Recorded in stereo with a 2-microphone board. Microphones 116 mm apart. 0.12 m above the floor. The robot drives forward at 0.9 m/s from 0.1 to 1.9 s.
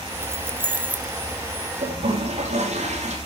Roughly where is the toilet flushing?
Right.